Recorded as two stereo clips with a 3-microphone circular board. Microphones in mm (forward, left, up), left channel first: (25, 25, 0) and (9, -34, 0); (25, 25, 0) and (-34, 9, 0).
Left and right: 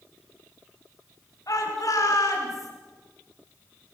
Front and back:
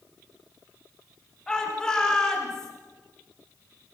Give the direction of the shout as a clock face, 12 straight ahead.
9 o'clock.